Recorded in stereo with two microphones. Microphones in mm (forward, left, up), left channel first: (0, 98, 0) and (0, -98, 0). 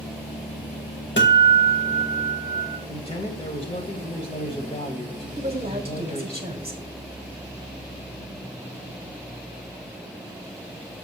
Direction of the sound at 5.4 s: 30° right (ahead or behind).